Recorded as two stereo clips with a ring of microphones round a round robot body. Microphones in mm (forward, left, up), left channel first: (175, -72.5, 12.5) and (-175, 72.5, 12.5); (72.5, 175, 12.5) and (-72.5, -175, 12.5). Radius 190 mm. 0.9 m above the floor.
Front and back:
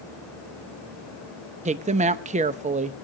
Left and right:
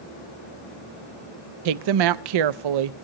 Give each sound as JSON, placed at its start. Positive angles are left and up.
{"t": 1.6, "sound": "a woman speaking", "azimuth_deg": -130, "distance_m": 0.6}